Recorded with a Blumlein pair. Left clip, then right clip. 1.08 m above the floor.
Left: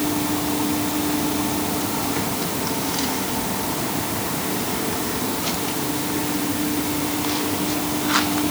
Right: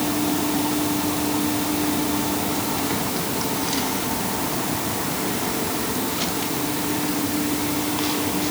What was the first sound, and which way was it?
Only background noise.